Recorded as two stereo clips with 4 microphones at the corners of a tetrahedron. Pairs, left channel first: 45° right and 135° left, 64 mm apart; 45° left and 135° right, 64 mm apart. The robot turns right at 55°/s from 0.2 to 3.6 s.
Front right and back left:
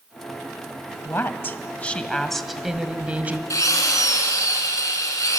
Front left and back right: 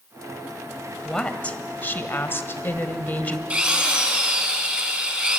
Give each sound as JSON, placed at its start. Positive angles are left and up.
{"t": 1.1, "sound": "a woman speaking", "azimuth_deg": -35, "distance_m": 1.7}
{"t": 3.5, "sound": "a drill", "azimuth_deg": -70, "distance_m": 3.5}